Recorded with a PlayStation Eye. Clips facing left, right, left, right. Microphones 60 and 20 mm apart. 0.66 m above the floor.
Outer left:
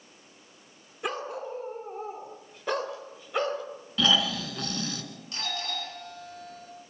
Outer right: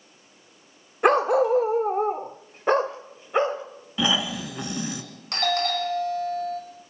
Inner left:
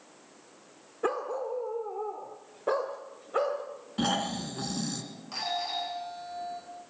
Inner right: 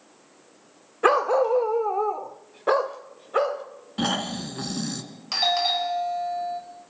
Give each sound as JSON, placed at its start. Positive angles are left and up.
{"t": 1.0, "sound": "a dog barking", "side_deg": -55, "distance_m": 0.6}
{"t": 4.0, "sound": "snoring", "side_deg": -15, "distance_m": 1.5}
{"t": 5.3, "sound": "a doorbell", "side_deg": -70, "distance_m": 5.0}